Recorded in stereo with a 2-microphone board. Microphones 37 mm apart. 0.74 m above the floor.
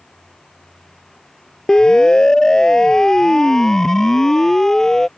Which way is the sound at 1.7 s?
20° left (ahead or behind).